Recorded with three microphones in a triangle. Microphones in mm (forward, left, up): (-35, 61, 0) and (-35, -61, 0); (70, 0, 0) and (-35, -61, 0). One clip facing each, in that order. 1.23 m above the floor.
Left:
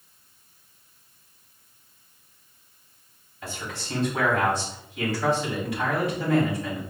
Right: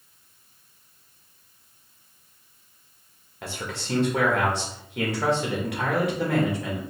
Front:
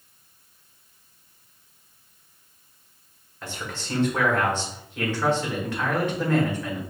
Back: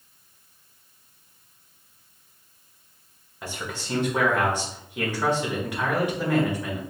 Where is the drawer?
No drawer in this recording.